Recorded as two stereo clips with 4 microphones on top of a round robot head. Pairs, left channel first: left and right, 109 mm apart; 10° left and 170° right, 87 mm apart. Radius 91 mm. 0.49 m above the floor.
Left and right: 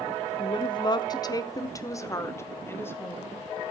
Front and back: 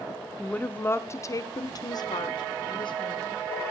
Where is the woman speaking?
85° left, 1.1 m; by 3.7 s 20° left, 2.5 m.